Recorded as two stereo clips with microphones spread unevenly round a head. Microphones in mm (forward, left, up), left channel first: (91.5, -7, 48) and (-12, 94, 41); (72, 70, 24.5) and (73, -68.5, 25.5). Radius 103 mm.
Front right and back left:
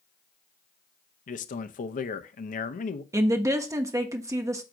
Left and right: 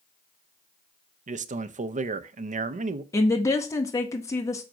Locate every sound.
1.3 s a man speaking: 70° right, 0.6 m
3.1 s a woman speaking: 120° left, 0.6 m